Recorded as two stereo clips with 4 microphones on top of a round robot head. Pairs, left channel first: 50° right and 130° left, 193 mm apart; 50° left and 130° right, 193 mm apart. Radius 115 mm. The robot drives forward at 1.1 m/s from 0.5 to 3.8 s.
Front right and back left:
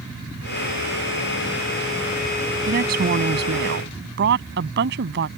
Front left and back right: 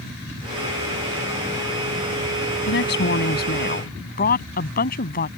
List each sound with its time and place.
2.7 s a woman speaking: 80° left; by 5.3 s 95° left